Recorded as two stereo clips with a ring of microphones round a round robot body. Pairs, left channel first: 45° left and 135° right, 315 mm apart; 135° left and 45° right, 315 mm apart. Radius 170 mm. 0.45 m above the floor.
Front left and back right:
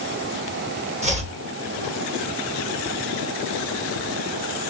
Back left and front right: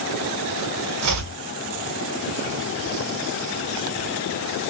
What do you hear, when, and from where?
1.0 s chopping: 70° right, 2.5 m